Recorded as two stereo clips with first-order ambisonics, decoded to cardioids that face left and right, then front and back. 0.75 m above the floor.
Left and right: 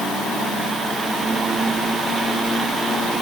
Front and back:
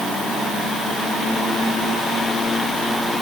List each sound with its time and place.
Only background noise.